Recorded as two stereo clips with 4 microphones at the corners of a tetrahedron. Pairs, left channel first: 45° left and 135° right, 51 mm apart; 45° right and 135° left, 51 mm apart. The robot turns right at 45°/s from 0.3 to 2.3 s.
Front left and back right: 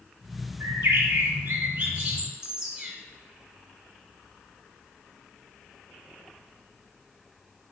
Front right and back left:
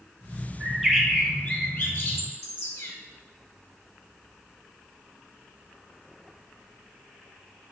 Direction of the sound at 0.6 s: 140° right.